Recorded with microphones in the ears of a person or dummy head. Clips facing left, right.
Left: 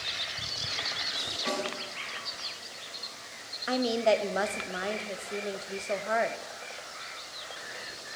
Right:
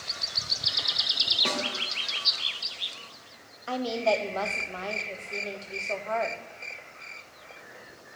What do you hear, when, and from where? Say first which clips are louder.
1.4 s a snare drum: even; 60° right (ahead or behind), 2.5 m
3.7 s a woman speaking: left 1 dB; 15° left (ahead or behind), 0.6 m